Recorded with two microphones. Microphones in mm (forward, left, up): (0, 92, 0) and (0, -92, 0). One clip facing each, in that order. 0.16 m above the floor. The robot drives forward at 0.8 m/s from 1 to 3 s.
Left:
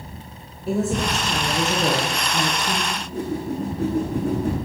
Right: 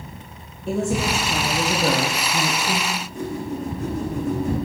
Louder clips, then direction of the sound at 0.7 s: Even; centre (ahead or behind).